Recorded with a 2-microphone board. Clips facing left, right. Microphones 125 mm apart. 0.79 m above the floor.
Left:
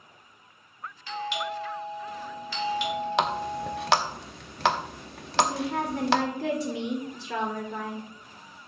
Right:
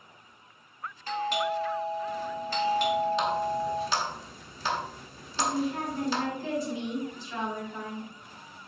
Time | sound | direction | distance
1.1 | a doorbell | 45° right (ahead or behind) | 1.8 m
3.2 | a running tap | 70° left (ahead or behind) | 0.7 m
5.4 | a woman speaking | 80° left | 2 m